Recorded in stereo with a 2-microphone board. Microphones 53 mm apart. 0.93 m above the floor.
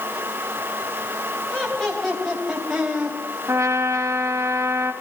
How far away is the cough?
I don't hear a cough.